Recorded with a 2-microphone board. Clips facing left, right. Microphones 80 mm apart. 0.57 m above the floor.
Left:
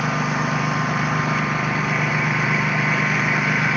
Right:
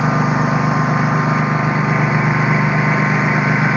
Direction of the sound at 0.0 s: 25° right (ahead or behind).